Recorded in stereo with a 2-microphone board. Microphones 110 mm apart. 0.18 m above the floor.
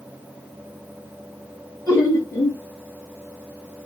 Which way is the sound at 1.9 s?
25° left (ahead or behind).